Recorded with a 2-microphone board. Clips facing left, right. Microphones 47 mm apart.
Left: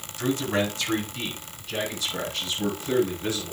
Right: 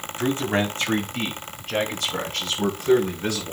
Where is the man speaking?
25° right (ahead or behind), 2.5 m; by 3.5 s 65° right (ahead or behind), 4 m.